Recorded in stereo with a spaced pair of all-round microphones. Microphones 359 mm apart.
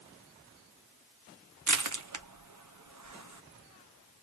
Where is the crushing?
55° right (ahead or behind), 0.8 m.